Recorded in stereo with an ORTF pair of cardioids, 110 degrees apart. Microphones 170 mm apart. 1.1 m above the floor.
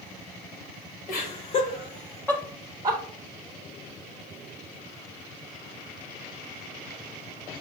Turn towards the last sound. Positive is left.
turn(degrees=-30)